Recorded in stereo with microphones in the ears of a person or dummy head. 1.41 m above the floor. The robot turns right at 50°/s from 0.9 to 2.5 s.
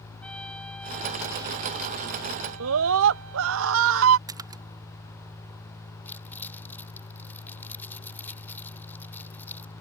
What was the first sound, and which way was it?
A trumpet, 175° left.